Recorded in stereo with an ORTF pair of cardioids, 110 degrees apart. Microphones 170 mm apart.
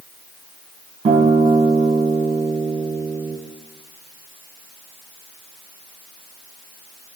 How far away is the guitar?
About 3.5 m.